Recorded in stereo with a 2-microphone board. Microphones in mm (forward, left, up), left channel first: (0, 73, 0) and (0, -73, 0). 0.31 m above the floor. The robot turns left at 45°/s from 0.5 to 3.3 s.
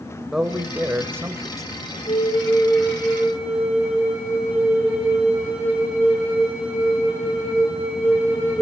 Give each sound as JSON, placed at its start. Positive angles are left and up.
{"t": 0.3, "sound": "a man speaking", "side_deg": -5, "distance_m": 1.4}
{"t": 2.1, "sound": "a flute", "azimuth_deg": 45, "distance_m": 8.0}